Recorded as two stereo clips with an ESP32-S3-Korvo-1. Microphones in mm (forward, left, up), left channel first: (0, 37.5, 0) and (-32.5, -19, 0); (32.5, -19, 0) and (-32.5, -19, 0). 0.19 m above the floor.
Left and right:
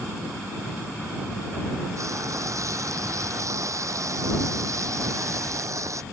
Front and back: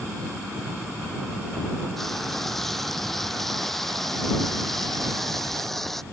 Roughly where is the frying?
Right.